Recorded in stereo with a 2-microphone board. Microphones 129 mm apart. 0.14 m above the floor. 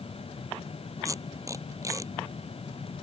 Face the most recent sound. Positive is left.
turn(degrees=-25)  # may be behind; listen again after turning